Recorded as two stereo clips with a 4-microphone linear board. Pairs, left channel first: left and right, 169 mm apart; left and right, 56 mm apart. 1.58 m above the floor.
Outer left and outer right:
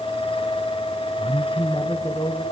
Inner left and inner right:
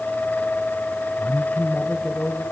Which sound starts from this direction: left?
A man speaking, at 1.2 s.